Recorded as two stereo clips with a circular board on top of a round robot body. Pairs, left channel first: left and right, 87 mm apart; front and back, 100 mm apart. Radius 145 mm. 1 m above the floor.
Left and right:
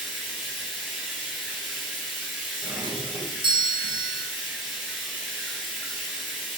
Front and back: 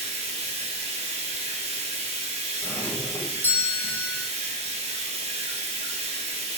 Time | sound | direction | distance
0.0 | running water | 175° right | 1.4 m
2.6 | a doorbell | 70° right | 1.6 m